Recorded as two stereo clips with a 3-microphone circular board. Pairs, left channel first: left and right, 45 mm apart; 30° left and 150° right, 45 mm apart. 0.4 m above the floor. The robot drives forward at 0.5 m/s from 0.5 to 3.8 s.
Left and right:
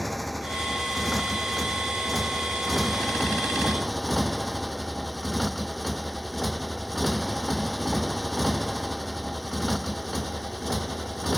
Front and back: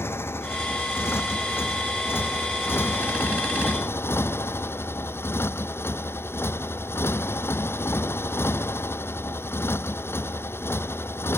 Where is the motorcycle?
Straight ahead.